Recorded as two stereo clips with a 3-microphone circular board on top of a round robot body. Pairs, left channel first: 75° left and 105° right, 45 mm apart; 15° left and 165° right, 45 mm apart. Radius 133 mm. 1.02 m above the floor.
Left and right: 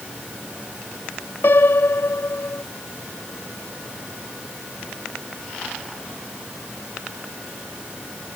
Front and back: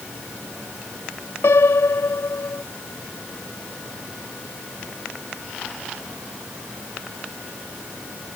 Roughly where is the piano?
Ahead left.